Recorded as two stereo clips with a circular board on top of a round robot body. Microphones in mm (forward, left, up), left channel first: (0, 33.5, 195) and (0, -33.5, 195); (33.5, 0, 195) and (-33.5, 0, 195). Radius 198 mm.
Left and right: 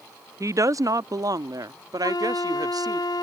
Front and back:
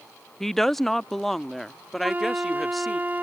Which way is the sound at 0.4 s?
85° right.